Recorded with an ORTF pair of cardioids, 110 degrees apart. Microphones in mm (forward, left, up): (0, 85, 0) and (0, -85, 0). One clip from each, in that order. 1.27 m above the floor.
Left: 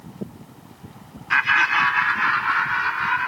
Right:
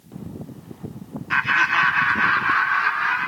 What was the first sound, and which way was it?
Laughter, 10° left.